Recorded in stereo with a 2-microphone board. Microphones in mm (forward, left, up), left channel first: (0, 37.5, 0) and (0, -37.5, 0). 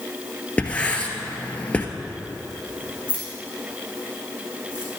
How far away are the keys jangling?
About 5 m.